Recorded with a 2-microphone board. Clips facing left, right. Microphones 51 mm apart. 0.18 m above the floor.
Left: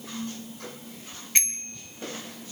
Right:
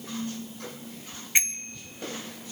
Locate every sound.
1.4 s a bicycle bell: 15° right (ahead or behind), 2 m